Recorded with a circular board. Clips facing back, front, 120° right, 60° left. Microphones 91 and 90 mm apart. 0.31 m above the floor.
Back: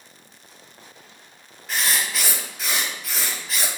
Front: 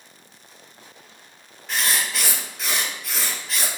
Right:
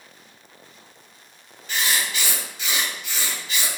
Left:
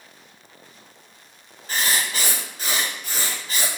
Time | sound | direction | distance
1.7 | writing | 90° left | 1.9 m